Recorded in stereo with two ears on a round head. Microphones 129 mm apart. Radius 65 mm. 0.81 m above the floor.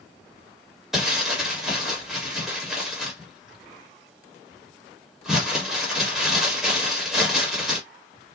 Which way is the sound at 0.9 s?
5° right (ahead or behind).